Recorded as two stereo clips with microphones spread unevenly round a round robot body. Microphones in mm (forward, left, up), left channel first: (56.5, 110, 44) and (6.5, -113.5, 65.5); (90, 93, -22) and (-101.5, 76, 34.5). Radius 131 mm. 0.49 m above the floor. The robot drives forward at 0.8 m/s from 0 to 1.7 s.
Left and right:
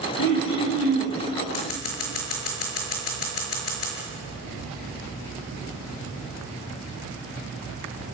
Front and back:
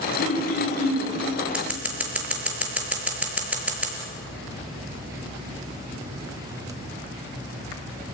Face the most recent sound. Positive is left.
turn(degrees=100)